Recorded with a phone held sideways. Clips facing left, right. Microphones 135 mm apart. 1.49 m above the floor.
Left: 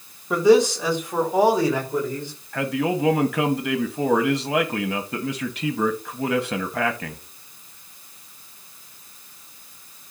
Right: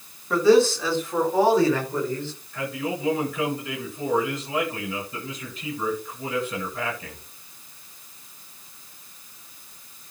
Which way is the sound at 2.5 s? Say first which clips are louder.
Left 6 dB; 80° left.